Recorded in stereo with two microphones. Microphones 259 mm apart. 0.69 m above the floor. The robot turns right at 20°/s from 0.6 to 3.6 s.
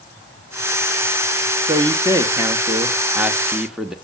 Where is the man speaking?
15° right (ahead or behind), 1.0 m; by 4.0 s centre (ahead or behind), 1.0 m.